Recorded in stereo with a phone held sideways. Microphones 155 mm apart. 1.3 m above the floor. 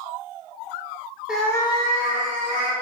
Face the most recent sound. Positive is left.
turn(degrees=60)  # may be behind; listen again after turning